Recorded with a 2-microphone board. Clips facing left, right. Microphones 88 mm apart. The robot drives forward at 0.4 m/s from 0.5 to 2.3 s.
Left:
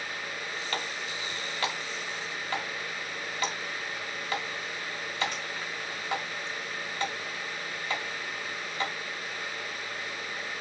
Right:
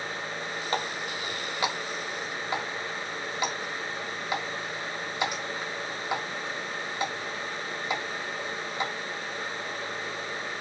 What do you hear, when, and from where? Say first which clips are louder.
0.7 s a running tap: right 6 dB; 25° right (ahead or behind), 0.9 m; by 8.9 s 15° right (ahead or behind), 1.4 m